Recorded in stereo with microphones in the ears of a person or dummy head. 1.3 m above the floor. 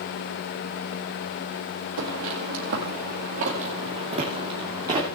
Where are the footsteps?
50° right (ahead or behind), 2.0 m; by 5.1 s 15° right (ahead or behind), 2.5 m.